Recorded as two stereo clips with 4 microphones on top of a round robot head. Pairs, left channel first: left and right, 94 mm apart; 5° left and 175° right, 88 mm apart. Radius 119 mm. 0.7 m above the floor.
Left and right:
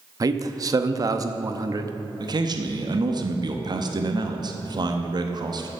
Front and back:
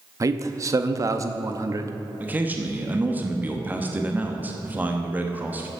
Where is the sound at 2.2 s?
110° right, 1.1 m.